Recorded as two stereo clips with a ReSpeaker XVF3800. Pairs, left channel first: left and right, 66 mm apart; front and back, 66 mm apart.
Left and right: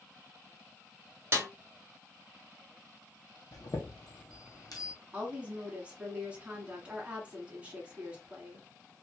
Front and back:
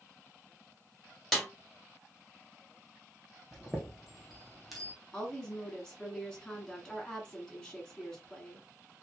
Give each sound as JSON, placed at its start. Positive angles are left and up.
{"t": 1.3, "sound": "a snare drum", "azimuth_deg": -90, "distance_m": 1.4}
{"t": 3.5, "sound": "a chime", "azimuth_deg": 90, "distance_m": 1.3}
{"t": 5.1, "sound": "a woman speaking", "azimuth_deg": -60, "distance_m": 1.4}